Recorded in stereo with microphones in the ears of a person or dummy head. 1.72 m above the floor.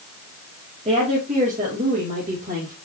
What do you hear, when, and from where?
0.8 s a woman speaking: 35° right (ahead or behind), 2.5 m; by 2.7 s 45° right (ahead or behind), 3.5 m